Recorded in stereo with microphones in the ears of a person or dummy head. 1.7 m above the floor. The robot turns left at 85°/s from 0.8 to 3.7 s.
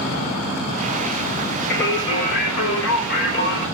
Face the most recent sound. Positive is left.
turn(degrees=5)